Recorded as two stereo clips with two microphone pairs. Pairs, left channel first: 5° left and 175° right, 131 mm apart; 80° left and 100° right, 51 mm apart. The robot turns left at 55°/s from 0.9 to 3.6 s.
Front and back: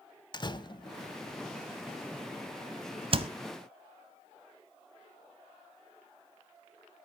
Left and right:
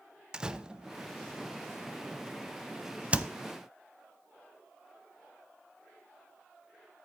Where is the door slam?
35° right, 0.9 m; by 3.3 s 165° right, 0.9 m.